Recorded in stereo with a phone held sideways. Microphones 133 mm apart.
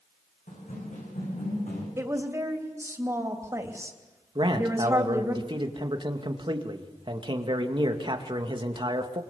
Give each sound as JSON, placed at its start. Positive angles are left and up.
{"t": 0.5, "sound": "running footsteps", "side_deg": 80, "distance_m": 7.5}
{"t": 2.0, "sound": "a woman speaking", "side_deg": -25, "distance_m": 3.0}
{"t": 4.3, "sound": "a man speaking", "side_deg": -40, "distance_m": 2.0}